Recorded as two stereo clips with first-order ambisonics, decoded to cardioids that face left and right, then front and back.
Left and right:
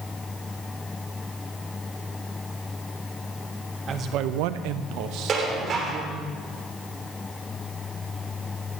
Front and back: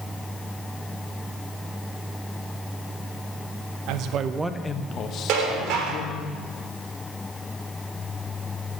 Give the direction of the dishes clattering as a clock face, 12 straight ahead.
5 o'clock.